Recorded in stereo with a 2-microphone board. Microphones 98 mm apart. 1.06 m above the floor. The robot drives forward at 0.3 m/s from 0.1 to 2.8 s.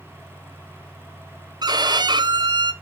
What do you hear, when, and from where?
1.6 s a violin: 45° right (ahead or behind), 0.7 m